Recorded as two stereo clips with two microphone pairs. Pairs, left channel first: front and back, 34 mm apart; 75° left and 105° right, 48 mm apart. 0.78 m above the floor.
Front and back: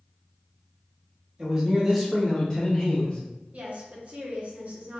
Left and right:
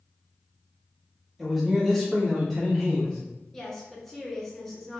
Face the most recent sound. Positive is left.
turn(degrees=160)